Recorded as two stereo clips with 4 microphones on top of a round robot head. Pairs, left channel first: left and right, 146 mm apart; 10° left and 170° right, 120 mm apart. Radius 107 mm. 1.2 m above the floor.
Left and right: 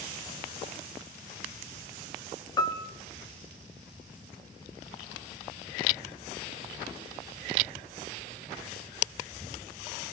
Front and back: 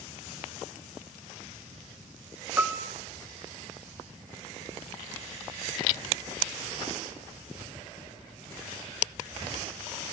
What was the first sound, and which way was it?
A piano, 125° left.